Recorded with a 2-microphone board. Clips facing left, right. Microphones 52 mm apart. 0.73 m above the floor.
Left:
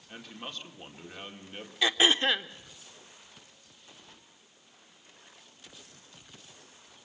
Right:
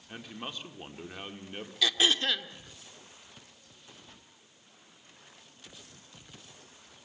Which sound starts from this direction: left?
Throat clearing, at 1.8 s.